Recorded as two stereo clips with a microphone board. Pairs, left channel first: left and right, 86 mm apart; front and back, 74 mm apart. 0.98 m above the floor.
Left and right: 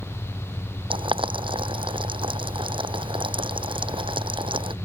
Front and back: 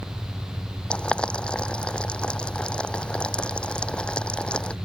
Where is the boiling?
75° right.